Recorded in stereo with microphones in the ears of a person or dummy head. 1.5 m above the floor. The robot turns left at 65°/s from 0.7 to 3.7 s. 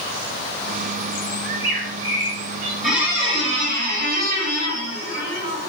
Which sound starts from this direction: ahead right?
A bird, at 1.4 s.